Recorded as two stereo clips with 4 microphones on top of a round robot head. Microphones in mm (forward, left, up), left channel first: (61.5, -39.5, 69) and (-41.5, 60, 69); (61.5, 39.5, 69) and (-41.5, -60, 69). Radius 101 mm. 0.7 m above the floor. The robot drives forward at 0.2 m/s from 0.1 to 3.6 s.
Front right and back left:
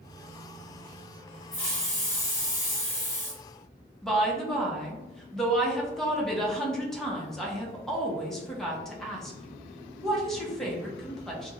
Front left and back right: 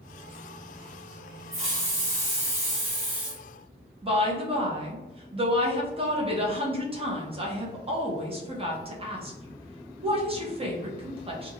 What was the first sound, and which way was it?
A hiss, 105° right.